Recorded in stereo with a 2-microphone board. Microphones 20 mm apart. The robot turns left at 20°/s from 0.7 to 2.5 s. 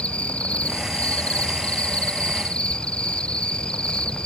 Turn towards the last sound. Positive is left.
turn(degrees=50)